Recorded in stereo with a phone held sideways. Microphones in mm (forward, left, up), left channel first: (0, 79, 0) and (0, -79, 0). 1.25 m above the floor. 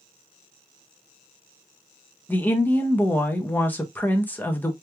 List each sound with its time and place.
2.3 s a woman speaking: 10° left (ahead or behind), 0.6 m